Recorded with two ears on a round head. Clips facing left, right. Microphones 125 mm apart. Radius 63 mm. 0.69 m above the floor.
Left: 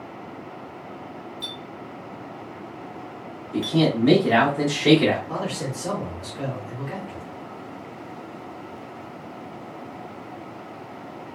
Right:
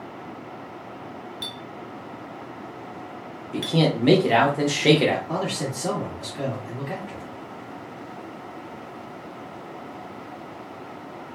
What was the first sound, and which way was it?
A clink, 60° right (ahead or behind).